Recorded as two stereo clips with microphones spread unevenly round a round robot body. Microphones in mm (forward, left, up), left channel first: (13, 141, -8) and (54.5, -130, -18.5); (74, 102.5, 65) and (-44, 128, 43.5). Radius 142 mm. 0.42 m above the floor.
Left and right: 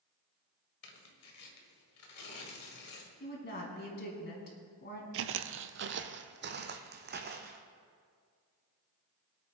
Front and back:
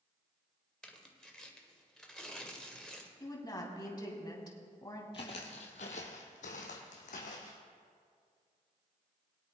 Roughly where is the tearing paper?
Left.